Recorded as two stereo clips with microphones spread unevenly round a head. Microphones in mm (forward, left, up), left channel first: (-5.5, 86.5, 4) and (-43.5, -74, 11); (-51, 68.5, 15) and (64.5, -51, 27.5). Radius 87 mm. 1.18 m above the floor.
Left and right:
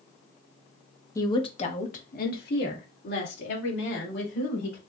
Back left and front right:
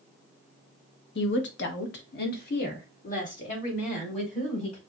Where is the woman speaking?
145° left, 1.0 m; by 4.8 s 85° left, 3.5 m.